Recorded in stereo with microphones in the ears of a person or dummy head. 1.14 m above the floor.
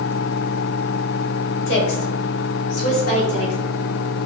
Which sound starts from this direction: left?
A woman speaking, at 1.7 s.